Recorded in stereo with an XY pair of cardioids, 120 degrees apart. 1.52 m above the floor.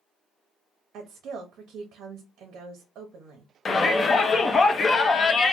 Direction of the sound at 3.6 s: 25° left.